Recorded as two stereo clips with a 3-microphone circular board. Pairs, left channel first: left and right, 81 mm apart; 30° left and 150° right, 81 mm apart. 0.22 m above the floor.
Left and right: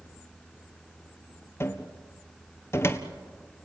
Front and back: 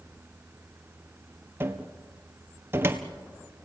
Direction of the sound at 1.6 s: 150° left.